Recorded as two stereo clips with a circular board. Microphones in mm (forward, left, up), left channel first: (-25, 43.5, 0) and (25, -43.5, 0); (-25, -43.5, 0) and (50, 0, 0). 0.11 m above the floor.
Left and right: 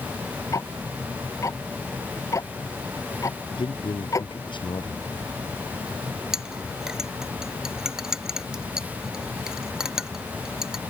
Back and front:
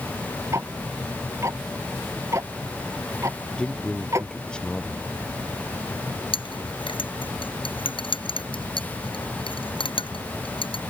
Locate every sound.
0.5 s ticking: 75° left
3.5 s a man speaking: 135° left
6.3 s a clink: 145° right